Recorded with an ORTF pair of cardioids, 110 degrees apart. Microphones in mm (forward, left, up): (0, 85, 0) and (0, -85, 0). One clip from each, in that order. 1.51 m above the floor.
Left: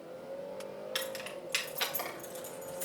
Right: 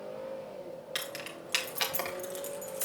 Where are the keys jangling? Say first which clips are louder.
Even; 5° right, 1.9 m; by 2.9 s 50° right, 1.9 m.